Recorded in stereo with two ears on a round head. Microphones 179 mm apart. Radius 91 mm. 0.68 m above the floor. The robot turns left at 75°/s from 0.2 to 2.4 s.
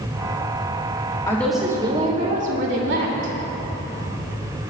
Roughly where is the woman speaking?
Ahead.